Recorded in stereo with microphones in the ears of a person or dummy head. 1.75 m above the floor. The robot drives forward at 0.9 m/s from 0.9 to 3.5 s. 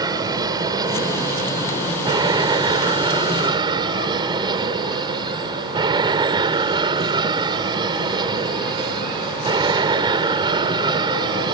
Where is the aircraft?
25° right (ahead or behind).